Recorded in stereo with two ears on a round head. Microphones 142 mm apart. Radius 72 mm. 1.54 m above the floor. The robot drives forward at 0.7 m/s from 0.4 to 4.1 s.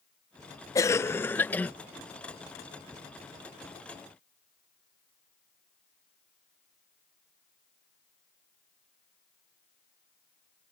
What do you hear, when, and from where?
0.8 s a cough: 20° left (ahead or behind); by 1.7 s 10° left (ahead or behind)